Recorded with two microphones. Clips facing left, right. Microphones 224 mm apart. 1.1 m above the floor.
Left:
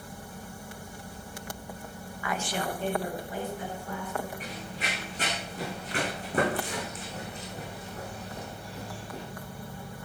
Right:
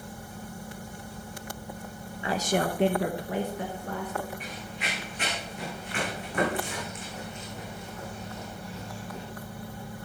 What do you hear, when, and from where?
2.2 s a woman speaking: 25° right (ahead or behind), 0.8 m; by 4.3 s 55° right (ahead or behind), 2 m
4.4 s running footsteps: 40° left (ahead or behind), 5.5 m; by 9.2 s 30° left (ahead or behind), 3 m